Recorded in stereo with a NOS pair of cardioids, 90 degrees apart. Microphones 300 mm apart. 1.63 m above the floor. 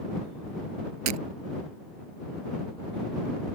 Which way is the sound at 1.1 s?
65° right.